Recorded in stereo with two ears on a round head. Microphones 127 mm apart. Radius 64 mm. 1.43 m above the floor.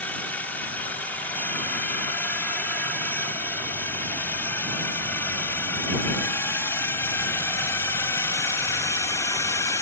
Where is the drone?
10° left (ahead or behind); by 9.8 s 25° left (ahead or behind).